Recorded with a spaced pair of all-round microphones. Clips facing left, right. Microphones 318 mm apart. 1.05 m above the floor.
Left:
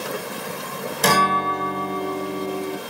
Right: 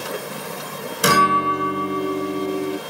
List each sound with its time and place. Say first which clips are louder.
1.0 s a guitar: right 2 dB; 15° right (ahead or behind), 0.6 m